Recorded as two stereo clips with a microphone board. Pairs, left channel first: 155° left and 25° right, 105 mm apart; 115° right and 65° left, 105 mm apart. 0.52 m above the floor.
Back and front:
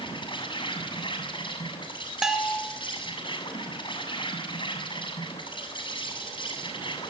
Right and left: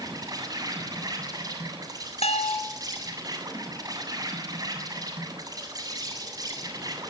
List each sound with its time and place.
0.0 s an insect: 120° left, 7.5 m
2.2 s a bell: 105° right, 2.5 m